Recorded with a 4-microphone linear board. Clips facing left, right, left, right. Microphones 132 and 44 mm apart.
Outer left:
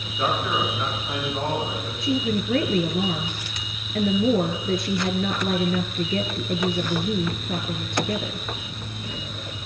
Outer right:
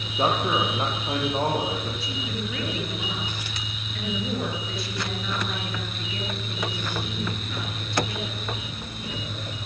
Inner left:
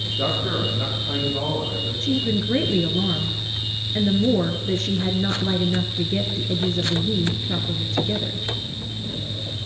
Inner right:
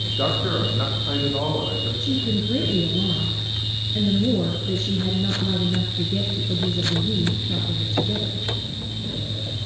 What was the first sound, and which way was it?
A man speaking, 35° right (ahead or behind).